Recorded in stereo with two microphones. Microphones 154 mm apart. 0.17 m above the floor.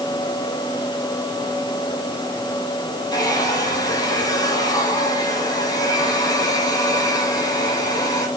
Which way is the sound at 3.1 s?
25° left (ahead or behind).